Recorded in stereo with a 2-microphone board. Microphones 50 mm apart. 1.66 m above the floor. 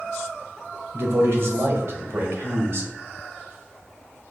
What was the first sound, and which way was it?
A man speaking, 60° right (ahead or behind).